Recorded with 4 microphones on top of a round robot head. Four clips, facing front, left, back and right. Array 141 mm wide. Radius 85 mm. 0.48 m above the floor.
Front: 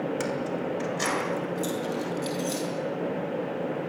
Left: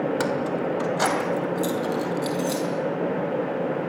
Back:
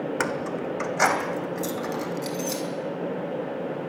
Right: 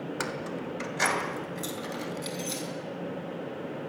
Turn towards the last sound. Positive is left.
turn(degrees=145)